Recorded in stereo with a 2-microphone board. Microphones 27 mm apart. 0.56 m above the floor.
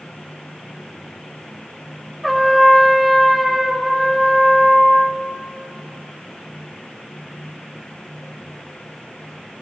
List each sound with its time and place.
2.2 s a trumpet: centre (ahead or behind), 1.7 m